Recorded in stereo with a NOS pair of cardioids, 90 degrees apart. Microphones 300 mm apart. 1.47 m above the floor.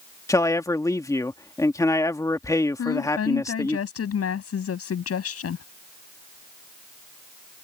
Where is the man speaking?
10° left.